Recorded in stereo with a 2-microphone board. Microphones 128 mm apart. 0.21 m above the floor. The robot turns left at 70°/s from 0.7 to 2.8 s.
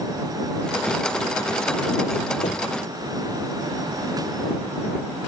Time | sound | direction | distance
2.4 | knocking | 70° left (ahead or behind) | ?